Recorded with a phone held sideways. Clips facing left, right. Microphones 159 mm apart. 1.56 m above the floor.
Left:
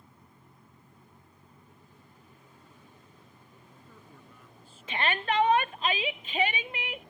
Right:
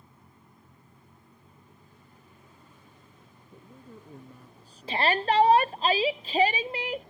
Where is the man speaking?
40° right (ahead or behind).